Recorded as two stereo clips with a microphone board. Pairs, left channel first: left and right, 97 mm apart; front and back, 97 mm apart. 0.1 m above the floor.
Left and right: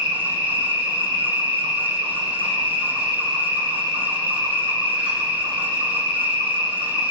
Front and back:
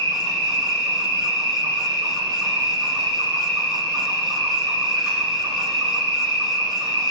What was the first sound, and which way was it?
An insect, 90° right.